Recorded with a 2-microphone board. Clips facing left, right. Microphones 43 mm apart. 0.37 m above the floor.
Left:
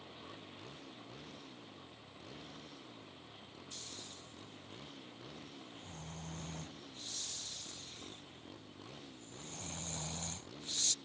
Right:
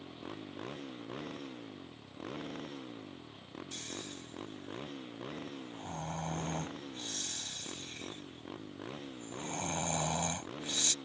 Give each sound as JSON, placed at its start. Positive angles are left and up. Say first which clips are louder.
{"t": 0.0, "sound": "a motorcycle", "louder": "right 6 dB", "side_deg": -50}
{"t": 3.7, "sound": "snoring", "louder": "right 8 dB", "side_deg": -60}